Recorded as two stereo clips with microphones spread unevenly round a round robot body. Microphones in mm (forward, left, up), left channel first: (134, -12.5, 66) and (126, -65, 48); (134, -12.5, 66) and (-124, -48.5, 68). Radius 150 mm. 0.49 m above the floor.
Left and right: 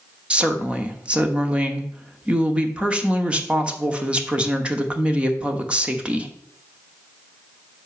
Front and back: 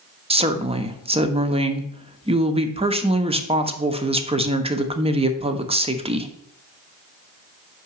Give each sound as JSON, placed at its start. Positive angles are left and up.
{"t": 0.3, "sound": "a woman speaking", "azimuth_deg": -115, "distance_m": 1.0}